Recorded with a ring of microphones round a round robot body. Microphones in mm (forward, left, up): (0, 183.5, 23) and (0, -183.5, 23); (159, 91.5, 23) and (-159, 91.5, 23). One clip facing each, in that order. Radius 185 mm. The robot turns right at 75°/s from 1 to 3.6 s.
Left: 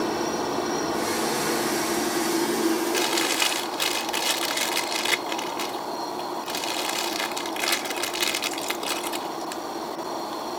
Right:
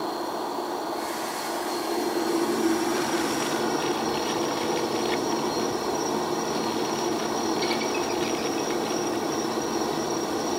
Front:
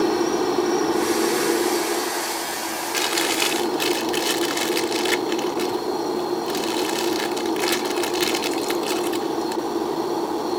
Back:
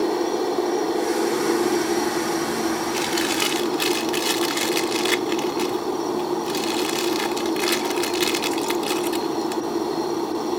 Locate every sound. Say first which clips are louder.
0.0 s a helicopter: left 4 dB, front 2 dB; 65° left; by 10.6 s 100° right
2.9 s chewing: right 1 dB, back 2 dB; 55° left; by 10.6 s 105° left